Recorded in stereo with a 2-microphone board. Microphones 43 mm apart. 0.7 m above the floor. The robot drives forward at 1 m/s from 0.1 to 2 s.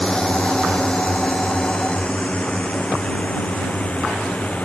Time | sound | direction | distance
0.0 | a drone | 20° left (ahead or behind) | ?